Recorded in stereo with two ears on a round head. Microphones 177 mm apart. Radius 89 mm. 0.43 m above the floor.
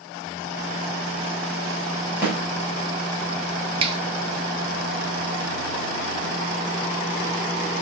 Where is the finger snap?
30° right (ahead or behind), 0.8 m.